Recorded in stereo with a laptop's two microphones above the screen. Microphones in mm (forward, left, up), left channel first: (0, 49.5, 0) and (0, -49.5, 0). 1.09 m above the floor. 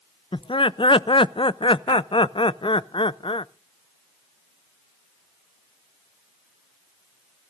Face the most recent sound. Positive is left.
turn(degrees=60)  # may be behind; listen again after turning